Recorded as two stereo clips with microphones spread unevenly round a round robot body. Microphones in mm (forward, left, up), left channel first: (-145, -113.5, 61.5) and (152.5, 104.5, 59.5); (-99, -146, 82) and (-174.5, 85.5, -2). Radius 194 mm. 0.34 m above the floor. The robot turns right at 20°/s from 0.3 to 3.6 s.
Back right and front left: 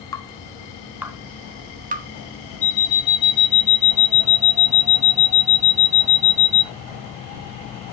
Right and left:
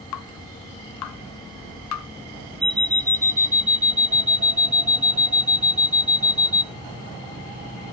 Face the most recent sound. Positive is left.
turn(degrees=170)